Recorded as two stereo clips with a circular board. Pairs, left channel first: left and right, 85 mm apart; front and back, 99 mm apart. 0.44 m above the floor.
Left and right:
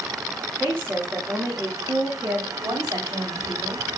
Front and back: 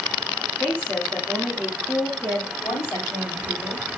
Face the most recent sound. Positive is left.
turn(degrees=-60)